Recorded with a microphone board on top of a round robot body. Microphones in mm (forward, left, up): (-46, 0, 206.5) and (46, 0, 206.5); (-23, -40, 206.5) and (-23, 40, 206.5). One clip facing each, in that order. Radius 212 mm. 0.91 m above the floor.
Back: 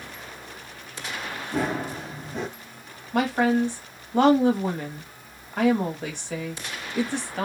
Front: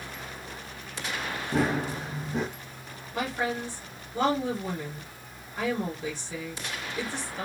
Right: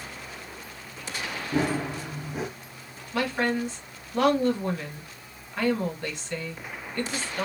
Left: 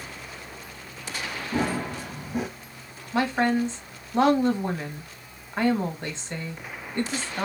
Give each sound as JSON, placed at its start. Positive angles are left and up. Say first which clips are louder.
{"t": 1.5, "sound": "running footsteps", "louder": "even, right 1 dB", "azimuth_deg": -10, "distance_m": 0.9}
{"t": 3.1, "sound": "a woman speaking", "louder": "back 9 dB, left 3 dB", "azimuth_deg": 155, "distance_m": 1.6}